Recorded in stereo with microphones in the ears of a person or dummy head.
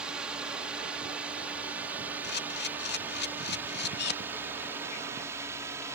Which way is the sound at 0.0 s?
5° right (ahead or behind).